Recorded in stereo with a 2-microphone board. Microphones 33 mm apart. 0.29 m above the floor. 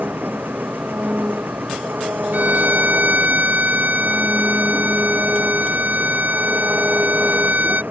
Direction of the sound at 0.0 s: 75° right (ahead or behind).